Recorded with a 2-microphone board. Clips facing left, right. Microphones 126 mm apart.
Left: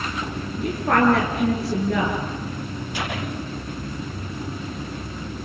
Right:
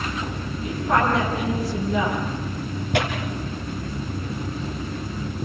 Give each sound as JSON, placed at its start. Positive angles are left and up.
{"t": 0.6, "sound": "a woman speaking", "side_deg": 70, "distance_m": 8.0}
{"t": 2.9, "sound": "tearing paper", "side_deg": -65, "distance_m": 5.5}